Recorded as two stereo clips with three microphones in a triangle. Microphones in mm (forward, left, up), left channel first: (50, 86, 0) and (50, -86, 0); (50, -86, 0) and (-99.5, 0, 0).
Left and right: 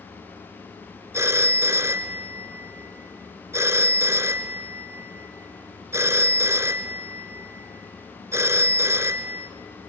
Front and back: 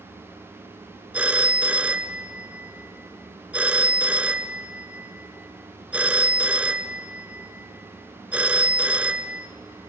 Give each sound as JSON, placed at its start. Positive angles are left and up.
{"t": 1.1, "sound": "a phone ringing", "azimuth_deg": -140, "distance_m": 0.8}